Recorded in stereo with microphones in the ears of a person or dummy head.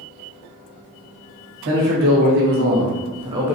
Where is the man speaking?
65° right (ahead or behind), 1.3 m; by 3.6 s 5° right (ahead or behind), 0.5 m.